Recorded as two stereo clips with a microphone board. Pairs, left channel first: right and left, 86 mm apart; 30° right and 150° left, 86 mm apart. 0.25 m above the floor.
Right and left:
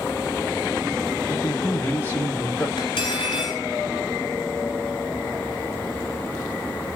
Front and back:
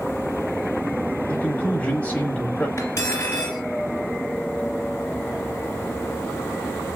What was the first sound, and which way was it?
A man speaking, 80° right.